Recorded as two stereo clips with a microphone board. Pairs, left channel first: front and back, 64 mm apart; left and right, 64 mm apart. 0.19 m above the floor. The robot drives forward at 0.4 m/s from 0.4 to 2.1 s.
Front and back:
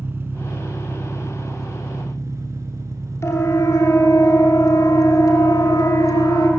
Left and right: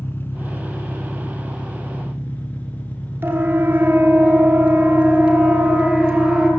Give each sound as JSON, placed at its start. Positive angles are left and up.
{"t": 0.0, "sound": "an engine running", "azimuth_deg": 140, "distance_m": 1.7}
{"t": 3.2, "sound": "a siren", "azimuth_deg": -35, "distance_m": 3.0}